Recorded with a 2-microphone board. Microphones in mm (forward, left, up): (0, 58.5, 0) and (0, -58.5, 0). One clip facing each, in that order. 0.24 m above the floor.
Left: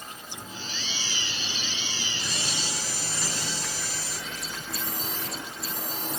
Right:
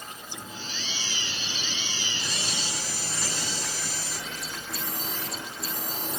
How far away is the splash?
I don't hear a splash.